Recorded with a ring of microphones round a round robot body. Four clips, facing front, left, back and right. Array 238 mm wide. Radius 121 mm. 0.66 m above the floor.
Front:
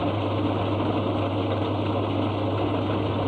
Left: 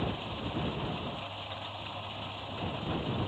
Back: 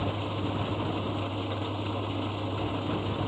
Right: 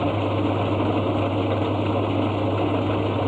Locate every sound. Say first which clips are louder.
0.0 s an engine running: right 14 dB, front 7 dB; 65° right